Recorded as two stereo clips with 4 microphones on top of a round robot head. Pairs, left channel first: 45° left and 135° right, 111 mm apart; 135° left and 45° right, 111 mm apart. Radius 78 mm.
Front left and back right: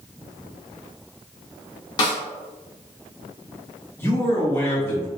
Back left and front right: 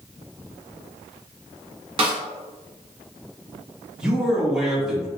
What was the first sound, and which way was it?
A snare drum, 5° right.